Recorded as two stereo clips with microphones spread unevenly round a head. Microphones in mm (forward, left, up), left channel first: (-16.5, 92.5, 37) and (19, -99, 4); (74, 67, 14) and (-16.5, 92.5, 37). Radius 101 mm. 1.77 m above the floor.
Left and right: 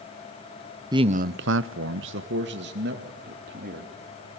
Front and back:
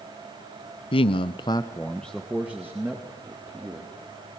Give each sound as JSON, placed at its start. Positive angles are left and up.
{"t": 0.9, "sound": "a man speaking", "azimuth_deg": -5, "distance_m": 0.8}